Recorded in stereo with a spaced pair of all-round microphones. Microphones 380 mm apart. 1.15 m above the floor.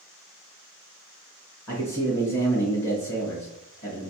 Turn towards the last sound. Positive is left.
turn(degrees=40)  # may be behind; listen again after turning